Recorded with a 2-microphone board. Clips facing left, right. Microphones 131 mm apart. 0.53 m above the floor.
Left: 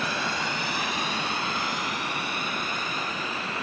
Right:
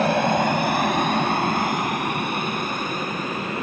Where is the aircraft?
55° right (ahead or behind); by 3.6 s 50° right (ahead or behind).